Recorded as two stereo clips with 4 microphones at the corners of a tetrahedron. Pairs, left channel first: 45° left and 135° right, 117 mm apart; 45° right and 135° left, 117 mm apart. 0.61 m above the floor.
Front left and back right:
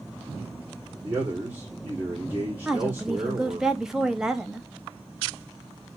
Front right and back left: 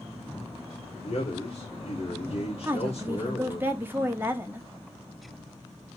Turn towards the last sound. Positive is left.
turn(degrees=150)